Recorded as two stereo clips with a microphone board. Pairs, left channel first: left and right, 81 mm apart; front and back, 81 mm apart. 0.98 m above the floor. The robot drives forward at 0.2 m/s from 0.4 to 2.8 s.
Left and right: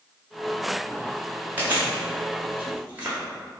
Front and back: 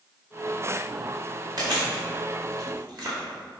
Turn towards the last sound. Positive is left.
turn(degrees=-160)